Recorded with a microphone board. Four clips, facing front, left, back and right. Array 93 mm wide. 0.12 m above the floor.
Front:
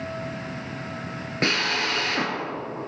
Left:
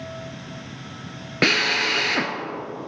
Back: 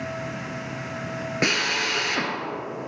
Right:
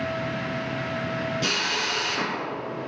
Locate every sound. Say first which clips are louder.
1.4 s a drill: left 6 dB, front 1 dB; 100° left, 1.7 m